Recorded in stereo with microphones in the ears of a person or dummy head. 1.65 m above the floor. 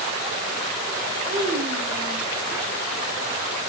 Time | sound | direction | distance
1.3 | a child speaking | 30° right (ahead or behind) | 4 m